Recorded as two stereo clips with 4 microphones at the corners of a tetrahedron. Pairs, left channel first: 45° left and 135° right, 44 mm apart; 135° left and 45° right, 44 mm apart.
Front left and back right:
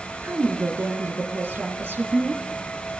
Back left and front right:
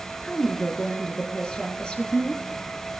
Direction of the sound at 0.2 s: 155° right.